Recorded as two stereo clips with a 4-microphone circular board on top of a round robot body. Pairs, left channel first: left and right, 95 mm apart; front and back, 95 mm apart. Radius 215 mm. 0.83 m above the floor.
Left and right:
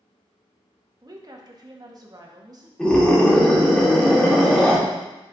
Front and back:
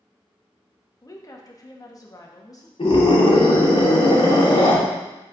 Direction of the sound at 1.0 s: 45° right.